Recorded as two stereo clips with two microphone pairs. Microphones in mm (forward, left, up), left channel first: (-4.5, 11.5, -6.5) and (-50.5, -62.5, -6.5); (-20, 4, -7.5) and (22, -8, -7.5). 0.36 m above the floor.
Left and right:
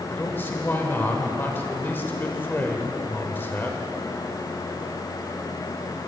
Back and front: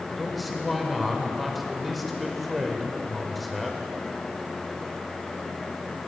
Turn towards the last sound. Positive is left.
turn(degrees=75)